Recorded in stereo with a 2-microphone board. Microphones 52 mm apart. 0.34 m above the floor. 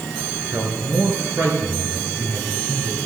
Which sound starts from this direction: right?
A man speaking, at 0.5 s.